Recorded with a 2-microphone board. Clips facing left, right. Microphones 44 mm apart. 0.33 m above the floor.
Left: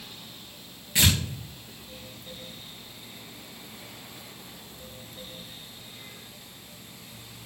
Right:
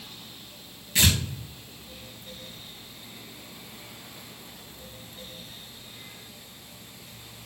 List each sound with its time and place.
0.9 s tearing paper: 15° left (ahead or behind), 3.5 m